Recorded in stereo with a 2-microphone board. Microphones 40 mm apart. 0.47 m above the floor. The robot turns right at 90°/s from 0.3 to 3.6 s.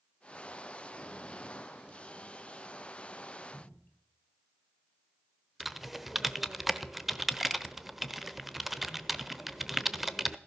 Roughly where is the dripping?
Left.